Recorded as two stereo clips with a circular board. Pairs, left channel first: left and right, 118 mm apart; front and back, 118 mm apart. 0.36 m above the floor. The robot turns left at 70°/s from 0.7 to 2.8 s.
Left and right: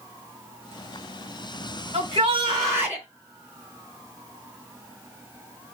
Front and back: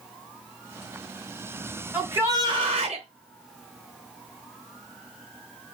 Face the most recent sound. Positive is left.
turn(degrees=-160)